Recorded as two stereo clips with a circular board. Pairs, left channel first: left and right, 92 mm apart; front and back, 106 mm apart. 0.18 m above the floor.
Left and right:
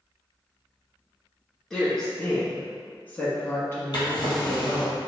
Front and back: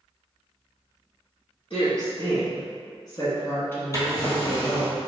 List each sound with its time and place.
1.7 s a woman speaking: 5° left, 2.0 m; by 4.9 s 105° left, 1.3 m
3.9 s a drawer: 55° left, 1.5 m